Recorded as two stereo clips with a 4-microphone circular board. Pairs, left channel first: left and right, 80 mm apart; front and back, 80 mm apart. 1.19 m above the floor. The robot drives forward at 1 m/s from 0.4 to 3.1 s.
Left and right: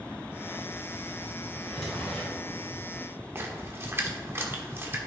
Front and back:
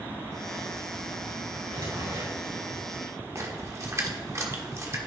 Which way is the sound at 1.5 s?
170° left.